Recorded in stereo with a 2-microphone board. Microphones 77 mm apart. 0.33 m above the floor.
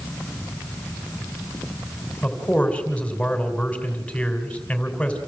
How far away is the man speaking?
About 3 m.